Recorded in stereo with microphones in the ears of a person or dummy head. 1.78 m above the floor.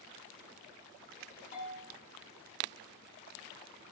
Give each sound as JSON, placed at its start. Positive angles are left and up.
{"t": 1.5, "sound": "a bell", "side_deg": 45, "distance_m": 0.8}